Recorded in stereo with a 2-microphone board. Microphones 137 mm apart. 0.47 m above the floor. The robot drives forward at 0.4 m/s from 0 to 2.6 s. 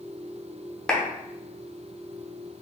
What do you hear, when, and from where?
0.9 s a clap: 5° left (ahead or behind), 0.8 m